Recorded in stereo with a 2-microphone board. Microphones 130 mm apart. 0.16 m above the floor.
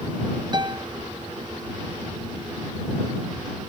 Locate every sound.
0.5 s a piano: 35° right (ahead or behind)